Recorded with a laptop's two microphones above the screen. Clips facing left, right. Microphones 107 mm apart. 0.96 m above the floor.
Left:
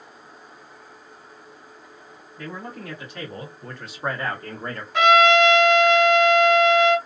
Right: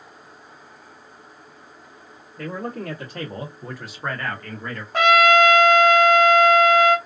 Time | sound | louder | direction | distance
2.4 | a man speaking | right 5 dB | 60° right (ahead or behind) | 1.4 m
4.9 | a trumpet | even | 45° right (ahead or behind) | 0.9 m